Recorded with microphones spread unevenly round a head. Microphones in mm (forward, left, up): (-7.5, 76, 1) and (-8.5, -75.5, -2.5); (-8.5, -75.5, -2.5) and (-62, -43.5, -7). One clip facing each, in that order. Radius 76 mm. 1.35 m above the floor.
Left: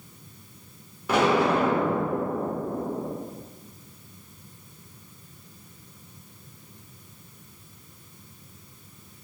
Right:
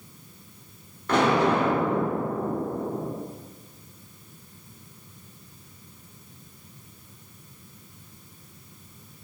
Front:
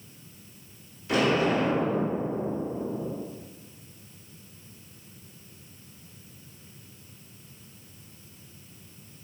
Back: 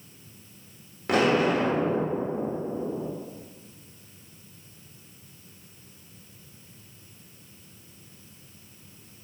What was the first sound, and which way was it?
An explosion, 170° left.